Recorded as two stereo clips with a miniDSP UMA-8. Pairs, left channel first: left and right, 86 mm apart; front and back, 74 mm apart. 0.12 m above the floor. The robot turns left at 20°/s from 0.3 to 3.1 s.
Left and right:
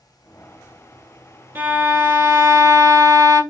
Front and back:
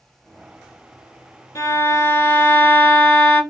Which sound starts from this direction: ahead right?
A violin, at 1.6 s.